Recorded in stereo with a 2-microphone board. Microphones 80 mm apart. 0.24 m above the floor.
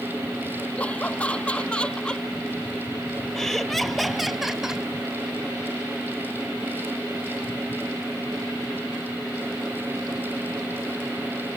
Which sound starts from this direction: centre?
Laughter, at 0.8 s.